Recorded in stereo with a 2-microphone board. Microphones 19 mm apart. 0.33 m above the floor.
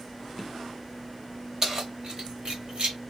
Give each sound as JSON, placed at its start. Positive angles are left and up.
{"t": 1.6, "sound": "keys jangling", "side_deg": -30, "distance_m": 1.3}